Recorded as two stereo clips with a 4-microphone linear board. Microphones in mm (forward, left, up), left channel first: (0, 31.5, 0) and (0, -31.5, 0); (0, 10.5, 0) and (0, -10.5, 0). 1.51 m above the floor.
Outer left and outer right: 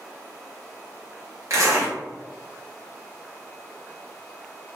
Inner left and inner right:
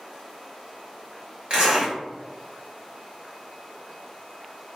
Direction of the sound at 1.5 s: 50° right (ahead or behind).